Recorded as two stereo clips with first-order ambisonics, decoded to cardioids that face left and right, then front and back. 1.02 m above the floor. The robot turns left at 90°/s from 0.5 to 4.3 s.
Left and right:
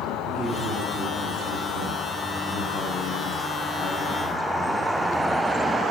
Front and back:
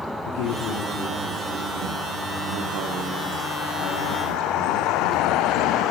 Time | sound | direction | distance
0.2 | a man speaking | 5° right | 2.5 m